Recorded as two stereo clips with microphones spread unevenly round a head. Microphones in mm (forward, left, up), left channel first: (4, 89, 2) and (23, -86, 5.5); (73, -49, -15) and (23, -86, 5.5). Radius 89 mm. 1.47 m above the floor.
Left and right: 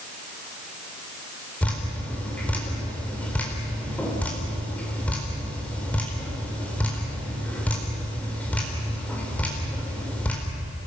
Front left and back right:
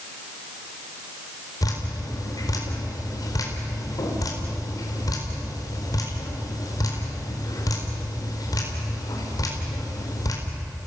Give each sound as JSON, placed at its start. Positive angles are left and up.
{"t": 1.6, "sound": "dripping", "azimuth_deg": 15, "distance_m": 4.5}